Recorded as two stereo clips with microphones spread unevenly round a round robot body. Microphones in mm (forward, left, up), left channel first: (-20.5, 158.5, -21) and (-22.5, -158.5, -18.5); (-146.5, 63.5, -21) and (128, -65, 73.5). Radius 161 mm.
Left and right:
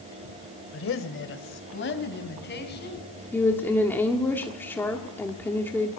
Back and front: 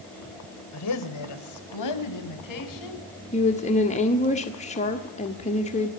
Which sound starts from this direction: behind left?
A woman speaking, at 0.7 s.